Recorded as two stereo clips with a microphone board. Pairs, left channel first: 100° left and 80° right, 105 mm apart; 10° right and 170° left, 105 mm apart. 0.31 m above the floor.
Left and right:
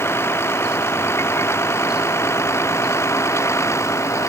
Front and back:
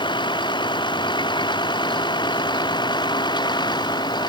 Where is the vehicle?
35° left.